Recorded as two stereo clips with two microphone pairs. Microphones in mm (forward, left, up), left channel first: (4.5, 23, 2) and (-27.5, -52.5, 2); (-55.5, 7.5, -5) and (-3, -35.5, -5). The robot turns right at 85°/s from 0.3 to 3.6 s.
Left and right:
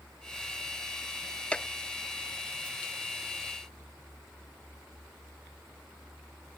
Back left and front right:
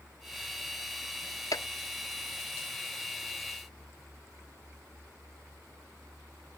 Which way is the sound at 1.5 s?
140° left.